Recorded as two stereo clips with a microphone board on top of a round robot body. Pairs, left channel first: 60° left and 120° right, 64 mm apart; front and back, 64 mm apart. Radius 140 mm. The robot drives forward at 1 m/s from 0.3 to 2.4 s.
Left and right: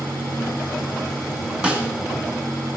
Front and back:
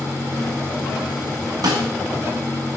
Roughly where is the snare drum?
Behind.